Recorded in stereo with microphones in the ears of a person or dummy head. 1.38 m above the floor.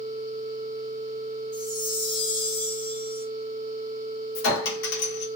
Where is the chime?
50° left (ahead or behind), 1.2 m.